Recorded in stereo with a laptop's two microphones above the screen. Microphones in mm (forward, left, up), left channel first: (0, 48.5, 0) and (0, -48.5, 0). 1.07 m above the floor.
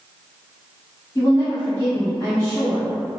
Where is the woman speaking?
40° left (ahead or behind), 1.4 m.